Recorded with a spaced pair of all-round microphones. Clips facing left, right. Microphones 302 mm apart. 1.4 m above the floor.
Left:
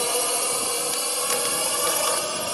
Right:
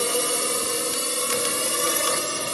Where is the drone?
25° right (ahead or behind).